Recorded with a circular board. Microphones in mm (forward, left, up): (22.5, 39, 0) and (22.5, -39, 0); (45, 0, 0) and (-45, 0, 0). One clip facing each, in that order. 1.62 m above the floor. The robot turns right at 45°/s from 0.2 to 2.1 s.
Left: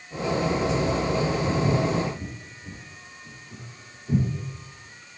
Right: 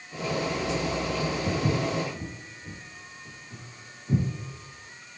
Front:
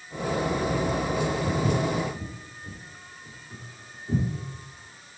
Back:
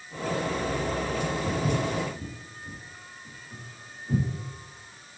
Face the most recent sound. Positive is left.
turn(degrees=45)